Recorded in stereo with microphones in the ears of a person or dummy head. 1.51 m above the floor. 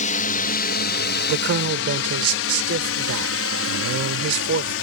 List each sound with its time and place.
0.0 s a drone: 50° left (ahead or behind); by 4.8 s 70° left (ahead or behind)
1.3 s a man speaking: 75° right (ahead or behind)